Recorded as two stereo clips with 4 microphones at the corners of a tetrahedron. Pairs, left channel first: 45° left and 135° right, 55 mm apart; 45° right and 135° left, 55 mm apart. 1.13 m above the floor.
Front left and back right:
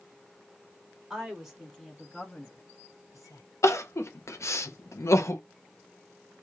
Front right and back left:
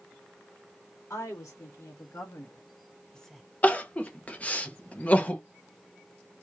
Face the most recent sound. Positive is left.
turn(degrees=20)